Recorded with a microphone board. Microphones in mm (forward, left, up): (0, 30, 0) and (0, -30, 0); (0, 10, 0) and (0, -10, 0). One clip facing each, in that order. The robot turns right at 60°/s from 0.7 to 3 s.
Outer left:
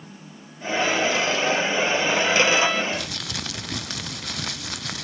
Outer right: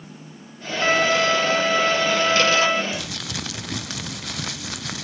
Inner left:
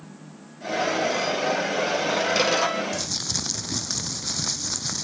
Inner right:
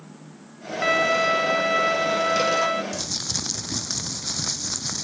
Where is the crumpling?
5° right (ahead or behind); by 5.0 s centre (ahead or behind).